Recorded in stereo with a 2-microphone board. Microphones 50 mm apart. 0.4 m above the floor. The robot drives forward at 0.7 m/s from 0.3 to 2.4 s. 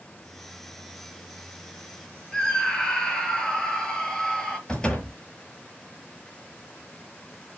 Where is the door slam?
15° left (ahead or behind), 7 m.